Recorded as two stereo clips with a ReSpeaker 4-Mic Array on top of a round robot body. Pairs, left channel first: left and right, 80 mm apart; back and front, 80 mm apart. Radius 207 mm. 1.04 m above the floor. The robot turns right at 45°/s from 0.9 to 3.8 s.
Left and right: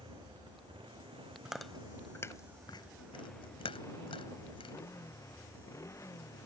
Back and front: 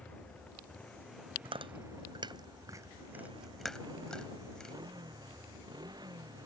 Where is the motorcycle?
105° right; by 6.5 s 35° left.